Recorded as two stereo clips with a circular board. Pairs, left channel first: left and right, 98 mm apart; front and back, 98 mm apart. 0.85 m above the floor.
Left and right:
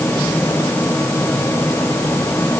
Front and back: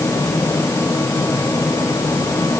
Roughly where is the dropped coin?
I don't hear a dropped coin.